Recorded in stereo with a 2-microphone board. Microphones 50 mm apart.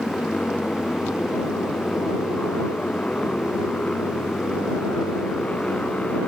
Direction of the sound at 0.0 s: 25° left (ahead or behind).